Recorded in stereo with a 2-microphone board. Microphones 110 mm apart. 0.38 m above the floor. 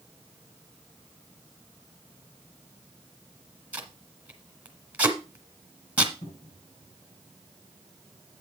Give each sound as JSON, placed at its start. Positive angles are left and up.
{"t": 3.7, "sound": "tape being pulled", "side_deg": -15, "distance_m": 1.6}
{"t": 6.2, "sound": "a cupboard door", "side_deg": 75, "distance_m": 6.5}